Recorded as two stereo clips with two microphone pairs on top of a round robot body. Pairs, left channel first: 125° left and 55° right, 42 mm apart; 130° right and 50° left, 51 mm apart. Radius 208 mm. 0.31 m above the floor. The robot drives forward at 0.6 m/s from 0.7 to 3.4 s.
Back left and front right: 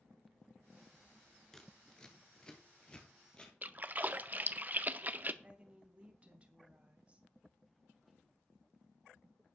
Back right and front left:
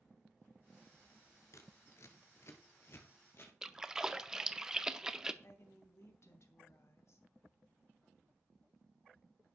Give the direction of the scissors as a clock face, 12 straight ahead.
5 o'clock.